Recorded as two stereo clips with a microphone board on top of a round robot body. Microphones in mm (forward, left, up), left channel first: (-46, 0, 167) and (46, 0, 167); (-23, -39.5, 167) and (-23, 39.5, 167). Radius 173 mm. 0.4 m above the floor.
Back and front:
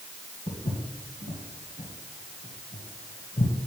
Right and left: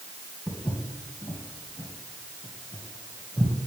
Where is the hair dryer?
I don't hear a hair dryer.